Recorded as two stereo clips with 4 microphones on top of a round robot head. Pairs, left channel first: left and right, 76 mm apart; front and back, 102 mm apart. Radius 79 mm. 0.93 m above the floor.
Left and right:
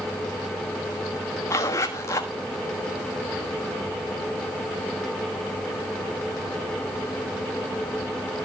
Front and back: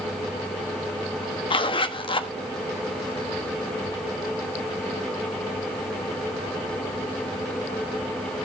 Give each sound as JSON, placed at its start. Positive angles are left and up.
{"t": 1.5, "sound": "a zipper", "azimuth_deg": 35, "distance_m": 1.3}